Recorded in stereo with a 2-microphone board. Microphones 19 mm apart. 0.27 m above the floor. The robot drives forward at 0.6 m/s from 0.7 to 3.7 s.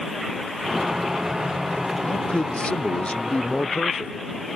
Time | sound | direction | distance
2.0 | a man speaking | 65° left (ahead or behind) | ?